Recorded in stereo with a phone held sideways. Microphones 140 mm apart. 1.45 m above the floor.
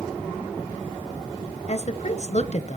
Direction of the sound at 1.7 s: 55° left (ahead or behind).